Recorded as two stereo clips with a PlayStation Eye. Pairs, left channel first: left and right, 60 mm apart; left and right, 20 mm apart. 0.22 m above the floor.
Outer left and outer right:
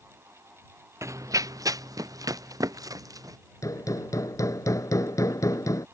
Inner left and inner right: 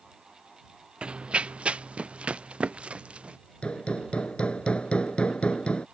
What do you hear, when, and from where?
1.0 s running footsteps: 55° right (ahead or behind); by 3.4 s 80° right
3.6 s hammering: 70° left (ahead or behind)